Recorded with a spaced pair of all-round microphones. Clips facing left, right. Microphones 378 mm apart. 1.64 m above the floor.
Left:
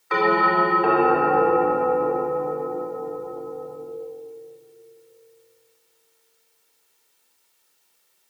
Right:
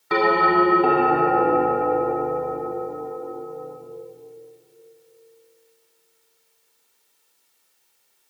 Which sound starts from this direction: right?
A bell, at 0.1 s.